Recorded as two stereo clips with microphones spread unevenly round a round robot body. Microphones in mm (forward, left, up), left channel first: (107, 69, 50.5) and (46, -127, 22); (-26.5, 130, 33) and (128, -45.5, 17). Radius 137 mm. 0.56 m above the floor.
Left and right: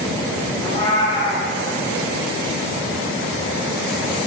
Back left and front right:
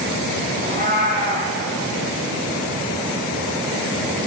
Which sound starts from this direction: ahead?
A cat meowing, at 0.6 s.